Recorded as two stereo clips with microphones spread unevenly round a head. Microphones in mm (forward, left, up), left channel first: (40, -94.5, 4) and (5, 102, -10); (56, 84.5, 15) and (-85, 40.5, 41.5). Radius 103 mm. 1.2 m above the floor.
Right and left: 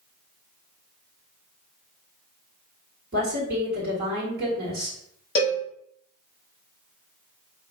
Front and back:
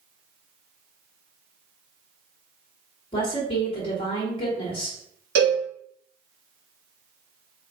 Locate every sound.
3.1 s a woman speaking: 65° left, 1.2 m
5.3 s a cowbell: 145° right, 1.3 m